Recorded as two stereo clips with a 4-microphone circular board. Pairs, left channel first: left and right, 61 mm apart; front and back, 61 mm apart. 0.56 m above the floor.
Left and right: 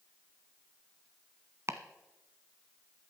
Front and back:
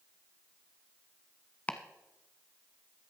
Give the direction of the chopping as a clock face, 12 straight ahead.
2 o'clock.